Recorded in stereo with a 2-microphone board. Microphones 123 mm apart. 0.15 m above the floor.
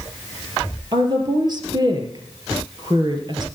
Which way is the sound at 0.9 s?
40° right (ahead or behind).